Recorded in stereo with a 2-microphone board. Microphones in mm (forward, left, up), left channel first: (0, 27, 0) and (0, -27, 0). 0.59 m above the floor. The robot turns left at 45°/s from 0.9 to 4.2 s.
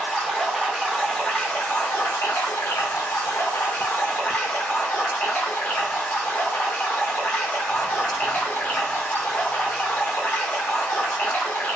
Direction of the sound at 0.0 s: 175° right.